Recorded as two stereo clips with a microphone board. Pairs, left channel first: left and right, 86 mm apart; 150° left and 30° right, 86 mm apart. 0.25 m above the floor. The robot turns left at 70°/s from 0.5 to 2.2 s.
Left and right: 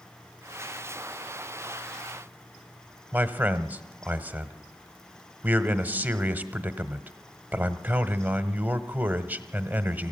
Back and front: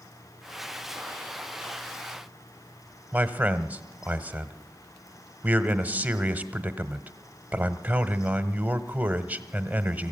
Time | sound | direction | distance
3.1 | a man speaking | 60° right | 1.1 m